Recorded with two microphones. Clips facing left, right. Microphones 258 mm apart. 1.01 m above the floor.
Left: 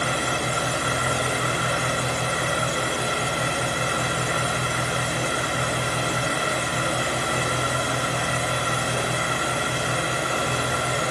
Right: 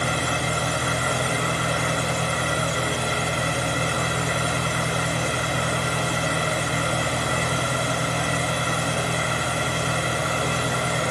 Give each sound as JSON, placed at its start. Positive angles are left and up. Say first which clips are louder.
{"t": 0.0, "sound": "an engine running", "louder": "even", "side_deg": 0, "distance_m": 2.5}